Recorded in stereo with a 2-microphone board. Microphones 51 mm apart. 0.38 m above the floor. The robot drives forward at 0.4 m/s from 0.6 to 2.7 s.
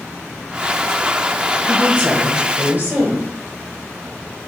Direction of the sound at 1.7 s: 35° right (ahead or behind).